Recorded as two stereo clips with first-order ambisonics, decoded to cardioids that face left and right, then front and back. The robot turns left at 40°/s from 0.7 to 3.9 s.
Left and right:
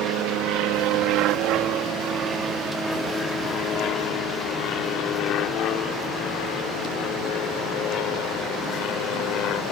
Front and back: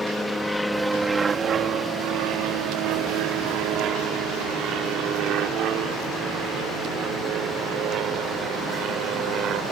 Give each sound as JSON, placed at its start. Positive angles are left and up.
{"t": 0.0, "sound": "an aircraft", "azimuth_deg": -85}